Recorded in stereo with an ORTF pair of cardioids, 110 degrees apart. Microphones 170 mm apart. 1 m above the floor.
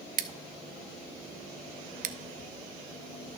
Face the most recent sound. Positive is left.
turn(degrees=-50)